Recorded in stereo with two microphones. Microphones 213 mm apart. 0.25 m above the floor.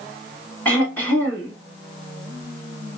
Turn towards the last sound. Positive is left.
turn(degrees=10)  # may be behind; listen again after turning